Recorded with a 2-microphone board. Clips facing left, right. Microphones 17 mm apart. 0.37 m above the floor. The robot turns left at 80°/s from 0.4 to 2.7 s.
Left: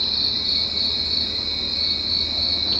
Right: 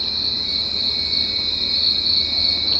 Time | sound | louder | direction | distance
0.0 | an insect | even | 40° left | 0.8 m